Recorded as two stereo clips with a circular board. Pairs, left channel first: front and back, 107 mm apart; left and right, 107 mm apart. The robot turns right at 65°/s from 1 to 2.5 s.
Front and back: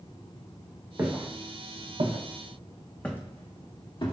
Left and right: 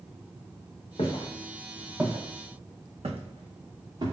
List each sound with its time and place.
1.0 s footsteps: 110° left, 1.0 m; by 4.1 s 40° right, 0.9 m